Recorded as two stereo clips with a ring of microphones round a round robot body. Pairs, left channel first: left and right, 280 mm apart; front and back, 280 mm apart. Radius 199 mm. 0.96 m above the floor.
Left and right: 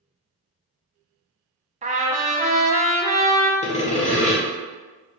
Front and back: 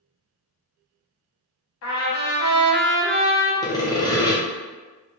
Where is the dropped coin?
I don't hear a dropped coin.